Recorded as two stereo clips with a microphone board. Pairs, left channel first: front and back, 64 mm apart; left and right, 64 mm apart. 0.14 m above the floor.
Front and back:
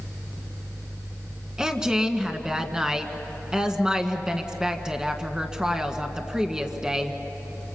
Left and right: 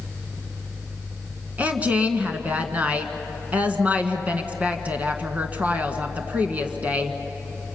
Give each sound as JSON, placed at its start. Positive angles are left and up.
{"t": 1.6, "sound": "a woman speaking", "azimuth_deg": -115, "distance_m": 1.7}